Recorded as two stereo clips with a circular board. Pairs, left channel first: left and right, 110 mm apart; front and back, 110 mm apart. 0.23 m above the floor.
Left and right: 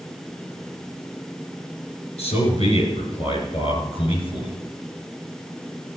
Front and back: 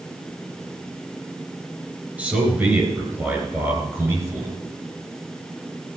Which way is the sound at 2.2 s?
100° left.